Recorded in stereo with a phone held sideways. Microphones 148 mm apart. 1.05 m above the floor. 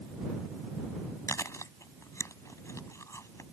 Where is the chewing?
20° left (ahead or behind).